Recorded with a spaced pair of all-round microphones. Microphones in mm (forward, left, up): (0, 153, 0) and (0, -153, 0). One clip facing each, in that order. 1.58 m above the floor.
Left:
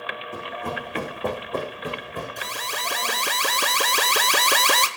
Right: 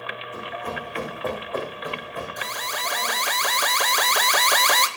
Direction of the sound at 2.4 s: 40° left (ahead or behind).